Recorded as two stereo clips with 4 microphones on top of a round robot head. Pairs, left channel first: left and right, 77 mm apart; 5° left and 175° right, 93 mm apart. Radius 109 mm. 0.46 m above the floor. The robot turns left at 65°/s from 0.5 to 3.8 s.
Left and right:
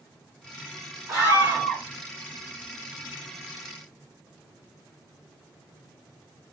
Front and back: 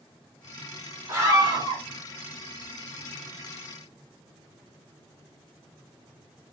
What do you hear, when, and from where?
1.1 s a scream: 120° right, 2 m; by 1.8 s 170° right, 2 m